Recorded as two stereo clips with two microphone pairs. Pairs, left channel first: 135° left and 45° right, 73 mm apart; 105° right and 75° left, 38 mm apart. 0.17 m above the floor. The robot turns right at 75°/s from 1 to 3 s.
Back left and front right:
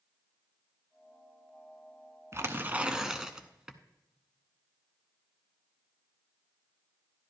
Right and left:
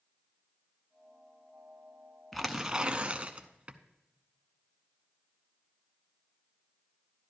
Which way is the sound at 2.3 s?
20° right.